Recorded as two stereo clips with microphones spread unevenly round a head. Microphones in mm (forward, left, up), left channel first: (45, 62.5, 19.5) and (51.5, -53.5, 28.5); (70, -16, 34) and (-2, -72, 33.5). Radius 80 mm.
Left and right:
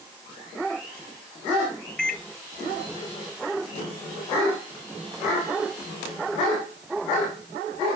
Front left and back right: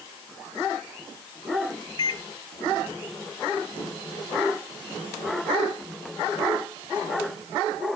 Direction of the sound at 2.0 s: 10° left.